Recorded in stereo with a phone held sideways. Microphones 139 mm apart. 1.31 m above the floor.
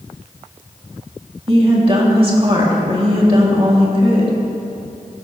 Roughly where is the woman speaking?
Right.